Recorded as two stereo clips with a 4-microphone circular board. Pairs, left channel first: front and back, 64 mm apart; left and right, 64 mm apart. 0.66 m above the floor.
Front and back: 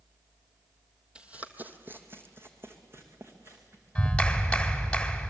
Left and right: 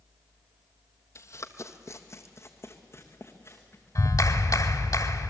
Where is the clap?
75° left, 1.8 m.